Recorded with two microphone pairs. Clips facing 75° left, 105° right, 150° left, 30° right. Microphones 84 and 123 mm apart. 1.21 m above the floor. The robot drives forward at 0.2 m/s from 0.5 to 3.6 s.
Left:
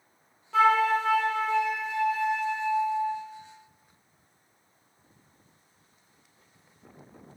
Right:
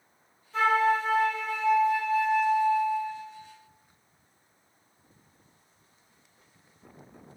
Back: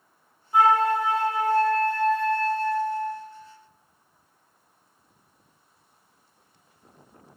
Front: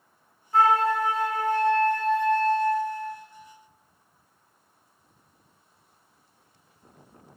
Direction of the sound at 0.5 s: 70° left.